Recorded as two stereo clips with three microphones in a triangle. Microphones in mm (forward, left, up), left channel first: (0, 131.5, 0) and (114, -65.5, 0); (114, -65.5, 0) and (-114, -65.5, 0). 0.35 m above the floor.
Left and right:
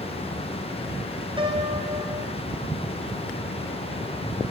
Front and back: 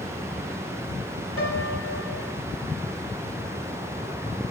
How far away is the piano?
About 1.2 m.